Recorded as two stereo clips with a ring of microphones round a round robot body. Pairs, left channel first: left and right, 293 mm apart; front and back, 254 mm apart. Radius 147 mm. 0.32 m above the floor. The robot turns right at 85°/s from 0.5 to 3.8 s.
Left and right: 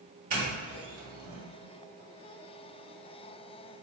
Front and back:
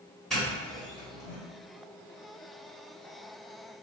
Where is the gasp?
I don't hear a gasp.